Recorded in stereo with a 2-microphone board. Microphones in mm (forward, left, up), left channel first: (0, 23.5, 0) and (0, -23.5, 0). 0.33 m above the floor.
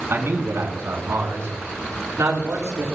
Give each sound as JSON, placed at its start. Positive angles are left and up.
{"t": 0.1, "sound": "a man speaking", "side_deg": -65, "distance_m": 4.0}